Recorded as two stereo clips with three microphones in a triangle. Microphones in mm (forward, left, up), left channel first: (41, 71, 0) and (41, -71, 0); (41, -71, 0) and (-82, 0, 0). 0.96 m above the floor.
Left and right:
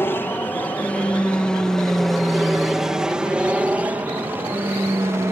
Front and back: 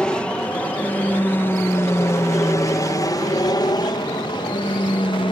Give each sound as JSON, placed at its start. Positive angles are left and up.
{"t": 0.0, "sound": "an aircraft", "azimuth_deg": 45}